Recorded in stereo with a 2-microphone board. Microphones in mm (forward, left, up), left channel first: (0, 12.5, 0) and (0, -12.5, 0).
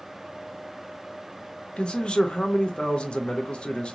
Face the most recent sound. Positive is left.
turn(degrees=45)  # may be behind; listen again after turning